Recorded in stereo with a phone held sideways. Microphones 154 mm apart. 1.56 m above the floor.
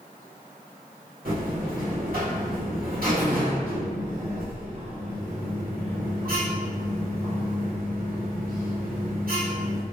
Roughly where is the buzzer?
Right.